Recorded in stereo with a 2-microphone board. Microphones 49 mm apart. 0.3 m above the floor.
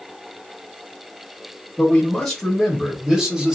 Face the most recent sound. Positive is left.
turn(degrees=-20)  # may be behind; listen again after turning